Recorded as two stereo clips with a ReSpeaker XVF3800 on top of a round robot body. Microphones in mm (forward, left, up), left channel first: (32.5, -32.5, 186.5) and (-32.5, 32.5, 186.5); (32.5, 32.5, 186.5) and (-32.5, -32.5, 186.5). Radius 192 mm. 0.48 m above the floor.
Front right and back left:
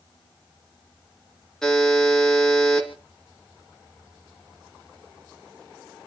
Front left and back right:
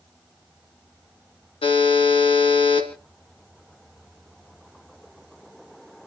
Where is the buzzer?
40° left, 3 m.